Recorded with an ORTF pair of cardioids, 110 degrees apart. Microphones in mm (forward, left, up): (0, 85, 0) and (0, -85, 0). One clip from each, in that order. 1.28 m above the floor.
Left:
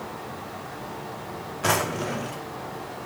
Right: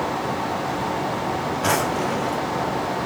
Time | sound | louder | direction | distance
0.0 | a fan | right 12 dB | 70° right | 0.8 m
1.6 | a drawer | right 2 dB | straight ahead | 1.8 m